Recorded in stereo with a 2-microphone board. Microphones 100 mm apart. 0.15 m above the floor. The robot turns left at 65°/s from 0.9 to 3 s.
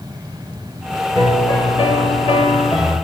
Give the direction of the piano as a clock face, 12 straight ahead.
7 o'clock.